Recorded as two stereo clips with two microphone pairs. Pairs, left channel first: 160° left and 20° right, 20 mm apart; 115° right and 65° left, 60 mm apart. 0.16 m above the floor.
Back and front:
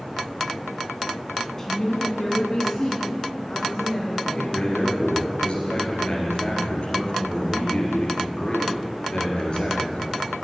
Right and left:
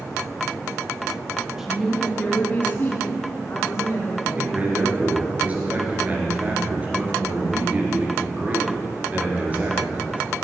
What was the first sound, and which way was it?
A woman speaking, 130° left.